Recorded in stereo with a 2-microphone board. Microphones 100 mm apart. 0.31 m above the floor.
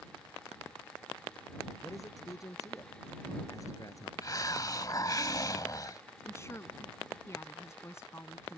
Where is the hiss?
35° left (ahead or behind).